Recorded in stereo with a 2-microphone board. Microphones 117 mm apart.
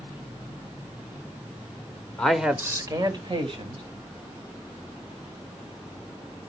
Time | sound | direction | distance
2.2 | a man speaking | 10° left (ahead or behind) | 1.1 m